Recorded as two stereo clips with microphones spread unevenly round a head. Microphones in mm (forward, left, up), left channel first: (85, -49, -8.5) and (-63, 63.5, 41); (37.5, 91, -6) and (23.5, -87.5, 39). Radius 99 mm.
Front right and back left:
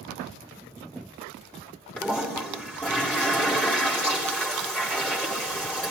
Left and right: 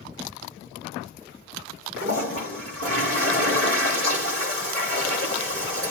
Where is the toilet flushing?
125° right, 3.5 m.